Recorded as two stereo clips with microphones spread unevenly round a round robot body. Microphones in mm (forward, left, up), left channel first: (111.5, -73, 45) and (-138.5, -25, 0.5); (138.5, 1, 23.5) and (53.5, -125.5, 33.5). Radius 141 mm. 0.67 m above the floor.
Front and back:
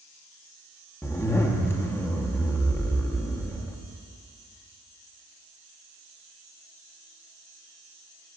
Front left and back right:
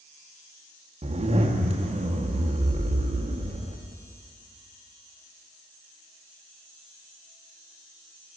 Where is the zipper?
95° right, 1.1 m.